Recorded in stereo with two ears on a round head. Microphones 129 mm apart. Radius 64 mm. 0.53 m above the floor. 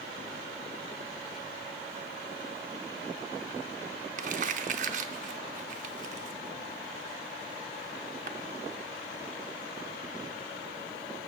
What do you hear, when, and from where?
4.2 s crumpling: 55° right (ahead or behind), 0.7 m